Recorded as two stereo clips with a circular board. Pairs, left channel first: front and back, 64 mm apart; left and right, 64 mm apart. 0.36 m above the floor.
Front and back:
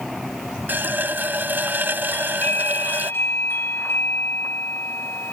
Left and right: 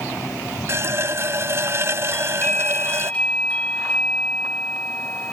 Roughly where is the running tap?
Behind right.